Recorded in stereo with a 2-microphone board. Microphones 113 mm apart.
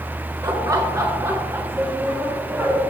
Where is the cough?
No cough in this recording.